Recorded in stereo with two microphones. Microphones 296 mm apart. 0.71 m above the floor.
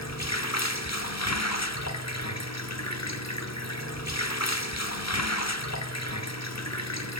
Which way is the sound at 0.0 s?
60° left (ahead or behind).